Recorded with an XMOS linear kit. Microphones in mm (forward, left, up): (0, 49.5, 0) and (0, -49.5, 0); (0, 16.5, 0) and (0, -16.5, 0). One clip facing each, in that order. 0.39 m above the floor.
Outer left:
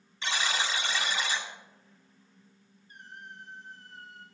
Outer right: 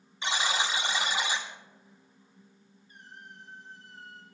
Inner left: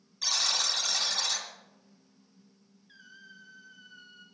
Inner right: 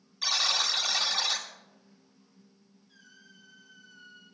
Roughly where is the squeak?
Left.